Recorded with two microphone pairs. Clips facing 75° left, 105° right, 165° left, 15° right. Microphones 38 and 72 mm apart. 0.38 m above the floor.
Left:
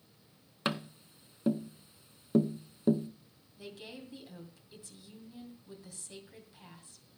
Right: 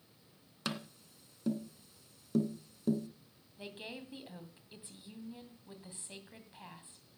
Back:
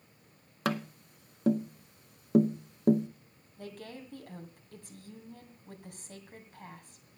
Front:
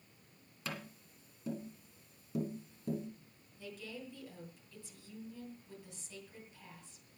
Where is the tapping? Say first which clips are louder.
Left 6 dB, back 12 dB; 140° left, 0.7 m.